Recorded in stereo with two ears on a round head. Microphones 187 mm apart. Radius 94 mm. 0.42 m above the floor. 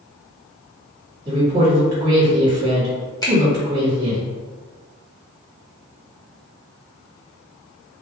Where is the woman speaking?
20° right (ahead or behind), 1.5 m.